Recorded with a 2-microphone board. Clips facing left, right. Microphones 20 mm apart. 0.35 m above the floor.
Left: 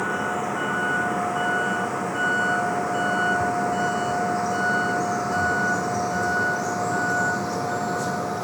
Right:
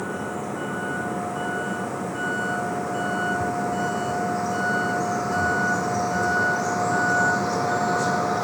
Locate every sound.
0.0 s a vehicle: 20° left (ahead or behind); by 8.4 s 25° right (ahead or behind)